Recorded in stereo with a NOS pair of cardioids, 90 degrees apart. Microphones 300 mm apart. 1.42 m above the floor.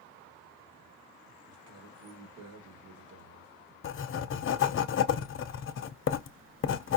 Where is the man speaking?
70° right, 1.9 m.